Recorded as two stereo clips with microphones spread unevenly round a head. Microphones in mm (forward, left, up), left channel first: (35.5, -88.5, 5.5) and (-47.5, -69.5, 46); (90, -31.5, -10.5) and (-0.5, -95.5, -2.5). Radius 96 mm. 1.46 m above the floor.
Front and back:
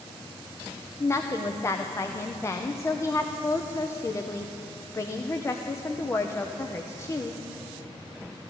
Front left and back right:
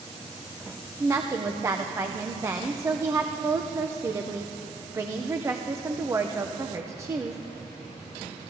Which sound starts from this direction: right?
A woman speaking, at 1.0 s.